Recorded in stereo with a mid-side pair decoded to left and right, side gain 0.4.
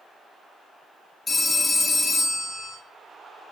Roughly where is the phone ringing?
Ahead left.